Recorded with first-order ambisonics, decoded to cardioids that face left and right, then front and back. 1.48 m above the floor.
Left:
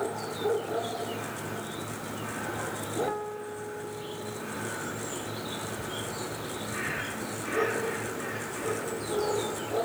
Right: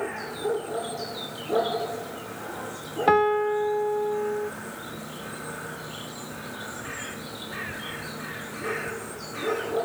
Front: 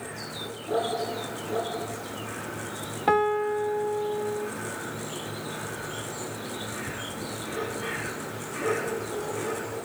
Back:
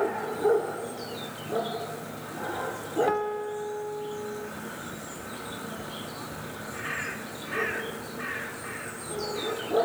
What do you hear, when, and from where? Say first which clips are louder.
3.1 s a piano: right 14 dB, front 5 dB; 65° right